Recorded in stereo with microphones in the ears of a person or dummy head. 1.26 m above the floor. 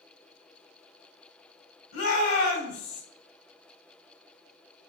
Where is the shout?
85° left, 1.8 m.